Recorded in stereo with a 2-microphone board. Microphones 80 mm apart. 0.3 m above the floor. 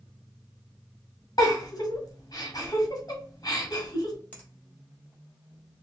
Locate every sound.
1.4 s a giggle: 50° left (ahead or behind), 1.7 m
4.3 s a finger snap: 20° left (ahead or behind), 1.4 m